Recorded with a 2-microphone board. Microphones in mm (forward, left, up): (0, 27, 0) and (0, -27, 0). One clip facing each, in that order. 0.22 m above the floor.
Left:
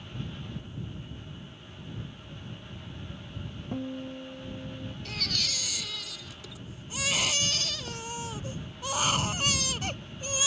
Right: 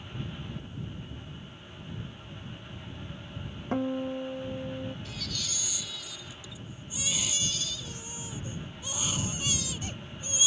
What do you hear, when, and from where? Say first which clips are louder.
3.7 s a guitar: right 6 dB; 80° right
5.0 s a baby crying: left 4 dB; 60° left (ahead or behind)